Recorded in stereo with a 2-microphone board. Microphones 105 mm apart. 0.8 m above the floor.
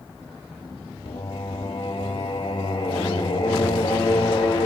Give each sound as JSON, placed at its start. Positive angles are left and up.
{"t": 1.1, "sound": "singing", "side_deg": 65, "distance_m": 1.6}